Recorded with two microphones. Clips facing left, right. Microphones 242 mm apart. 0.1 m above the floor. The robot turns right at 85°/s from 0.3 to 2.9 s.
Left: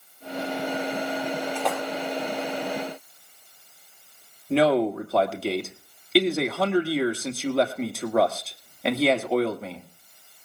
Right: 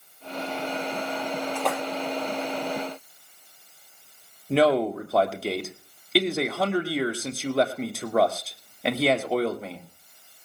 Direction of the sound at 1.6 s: 10° left (ahead or behind).